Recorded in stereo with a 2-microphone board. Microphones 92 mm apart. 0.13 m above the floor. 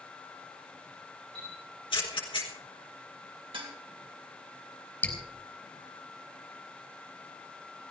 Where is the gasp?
No gasp in this recording.